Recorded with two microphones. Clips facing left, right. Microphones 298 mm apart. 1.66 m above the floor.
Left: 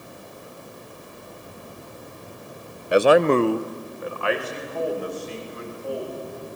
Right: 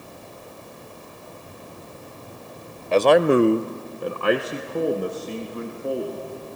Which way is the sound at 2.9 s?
15° left (ahead or behind).